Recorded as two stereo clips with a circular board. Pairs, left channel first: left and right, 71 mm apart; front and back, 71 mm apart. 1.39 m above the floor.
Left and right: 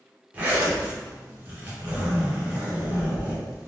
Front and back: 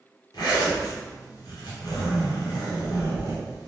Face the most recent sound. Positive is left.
turn(degrees=-20)